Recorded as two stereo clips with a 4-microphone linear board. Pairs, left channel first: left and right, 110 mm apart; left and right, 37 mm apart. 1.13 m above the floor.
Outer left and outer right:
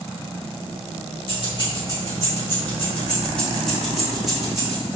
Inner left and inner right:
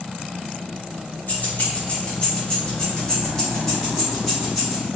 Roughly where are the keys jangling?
Left.